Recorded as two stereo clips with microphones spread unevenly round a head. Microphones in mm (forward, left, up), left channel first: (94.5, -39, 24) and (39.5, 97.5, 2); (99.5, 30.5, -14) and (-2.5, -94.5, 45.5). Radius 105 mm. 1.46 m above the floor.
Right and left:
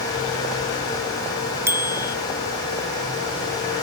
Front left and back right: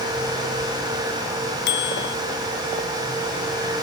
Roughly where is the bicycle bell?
Ahead left.